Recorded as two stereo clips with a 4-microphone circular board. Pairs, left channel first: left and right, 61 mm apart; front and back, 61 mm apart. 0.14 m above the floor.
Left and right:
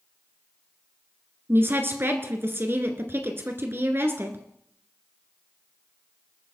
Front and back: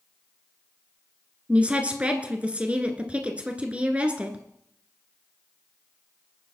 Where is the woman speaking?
120° right, 1.9 m.